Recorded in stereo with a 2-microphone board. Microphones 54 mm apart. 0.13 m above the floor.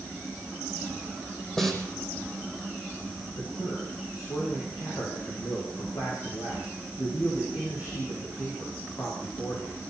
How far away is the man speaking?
About 8.5 m.